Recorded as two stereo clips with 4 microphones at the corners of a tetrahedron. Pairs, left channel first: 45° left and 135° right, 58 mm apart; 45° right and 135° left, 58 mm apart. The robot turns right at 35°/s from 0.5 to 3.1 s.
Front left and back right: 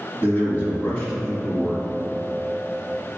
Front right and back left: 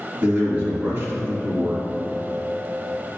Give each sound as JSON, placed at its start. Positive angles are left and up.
{"t": 0.2, "sound": "a man speaking", "azimuth_deg": 90, "distance_m": 2.0}